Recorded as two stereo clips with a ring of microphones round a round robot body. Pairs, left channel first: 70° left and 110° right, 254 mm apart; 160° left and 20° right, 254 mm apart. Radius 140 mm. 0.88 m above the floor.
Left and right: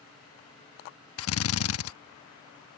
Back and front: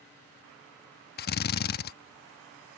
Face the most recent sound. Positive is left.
turn(degrees=105)